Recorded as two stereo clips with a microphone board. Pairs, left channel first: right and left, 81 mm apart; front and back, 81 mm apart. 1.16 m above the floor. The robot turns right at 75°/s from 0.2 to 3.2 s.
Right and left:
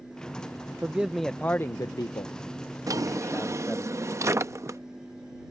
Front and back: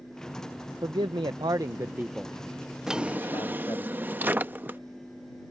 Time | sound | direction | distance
0.8 | a man speaking | 155° left | ?
2.9 | a drawer | 95° left | ?